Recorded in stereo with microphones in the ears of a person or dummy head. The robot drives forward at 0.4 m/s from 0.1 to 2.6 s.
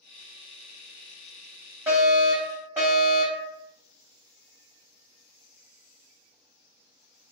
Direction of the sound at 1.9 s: 10° right (ahead or behind).